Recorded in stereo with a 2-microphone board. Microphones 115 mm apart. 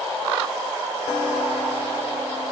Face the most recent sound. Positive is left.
No sound to turn to.